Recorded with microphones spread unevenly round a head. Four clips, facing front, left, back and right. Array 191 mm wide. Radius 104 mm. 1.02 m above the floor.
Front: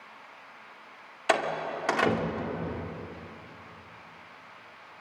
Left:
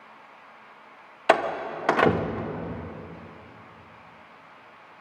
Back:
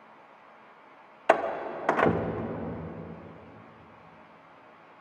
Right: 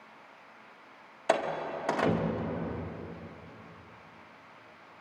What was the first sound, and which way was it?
A door slam, 90° left.